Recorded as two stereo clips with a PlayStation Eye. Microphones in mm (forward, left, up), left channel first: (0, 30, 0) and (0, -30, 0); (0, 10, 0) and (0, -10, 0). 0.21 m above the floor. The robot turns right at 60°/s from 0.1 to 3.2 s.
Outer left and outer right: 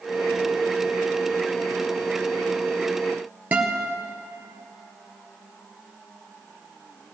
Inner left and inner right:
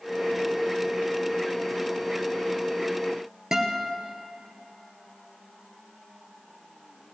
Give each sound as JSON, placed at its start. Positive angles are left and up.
{"t": 3.5, "sound": "a guitar", "side_deg": -25, "distance_m": 2.0}